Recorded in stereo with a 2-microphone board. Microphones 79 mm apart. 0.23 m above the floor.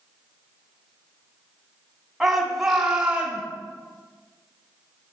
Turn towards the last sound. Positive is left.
turn(degrees=-20)  # may be behind; listen again after turning